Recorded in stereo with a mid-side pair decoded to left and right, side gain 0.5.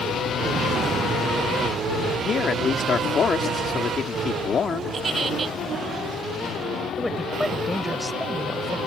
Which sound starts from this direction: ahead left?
A man speaking, at 2.2 s.